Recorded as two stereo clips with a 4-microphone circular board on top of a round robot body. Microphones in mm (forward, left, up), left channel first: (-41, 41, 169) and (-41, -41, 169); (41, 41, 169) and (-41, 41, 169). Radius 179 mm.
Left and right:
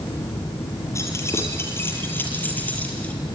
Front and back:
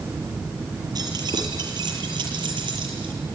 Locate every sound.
0.9 s keys jangling: 145° left, 7.5 m; by 3.1 s 165° left, 7.5 m